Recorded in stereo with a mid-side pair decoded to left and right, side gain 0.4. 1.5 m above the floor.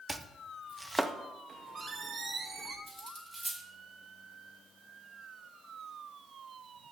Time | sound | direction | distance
0.1 | chopping | 10° right | 0.6 m
1.5 | a squeak | 45° right | 1.5 m
2.9 | cutlery clinking | 15° right | 2 m